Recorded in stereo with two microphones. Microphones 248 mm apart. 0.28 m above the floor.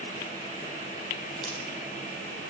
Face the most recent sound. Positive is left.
turn(degrees=0)  # may be behind; listen again after turning